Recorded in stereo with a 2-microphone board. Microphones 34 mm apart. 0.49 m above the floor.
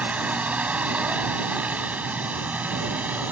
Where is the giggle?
No giggle in this recording.